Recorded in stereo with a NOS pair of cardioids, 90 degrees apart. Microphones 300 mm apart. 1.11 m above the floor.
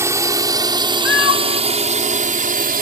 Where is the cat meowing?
45° left.